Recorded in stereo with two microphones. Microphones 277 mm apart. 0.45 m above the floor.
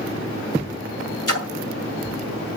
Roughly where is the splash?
Left.